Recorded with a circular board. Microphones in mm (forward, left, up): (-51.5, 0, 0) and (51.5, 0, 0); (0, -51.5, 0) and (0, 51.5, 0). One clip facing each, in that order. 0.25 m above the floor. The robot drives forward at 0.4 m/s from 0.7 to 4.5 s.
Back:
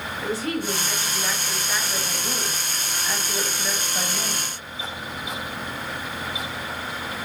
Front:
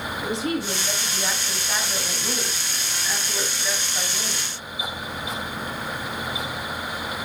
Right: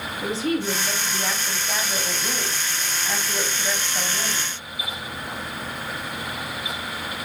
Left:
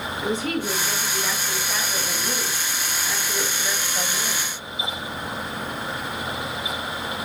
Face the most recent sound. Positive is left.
turn(degrees=-135)